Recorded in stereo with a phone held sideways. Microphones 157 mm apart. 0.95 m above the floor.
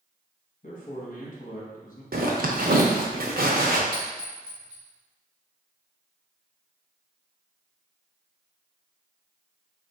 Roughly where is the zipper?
Right.